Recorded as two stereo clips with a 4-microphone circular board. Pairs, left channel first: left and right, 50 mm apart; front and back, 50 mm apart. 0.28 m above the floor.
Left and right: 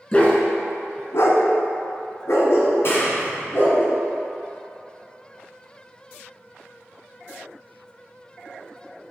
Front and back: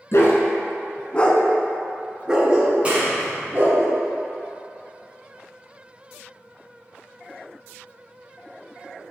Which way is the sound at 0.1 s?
25° left.